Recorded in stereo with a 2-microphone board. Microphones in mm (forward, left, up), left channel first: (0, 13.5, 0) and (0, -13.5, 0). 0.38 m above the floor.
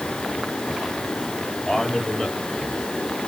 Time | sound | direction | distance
1.7 | a man speaking | 25° left (ahead or behind) | 9.5 m